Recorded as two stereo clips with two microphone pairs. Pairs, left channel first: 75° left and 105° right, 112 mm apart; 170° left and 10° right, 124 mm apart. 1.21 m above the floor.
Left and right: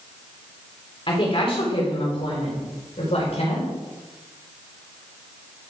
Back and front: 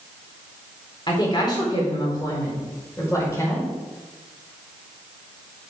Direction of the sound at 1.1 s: 115° left.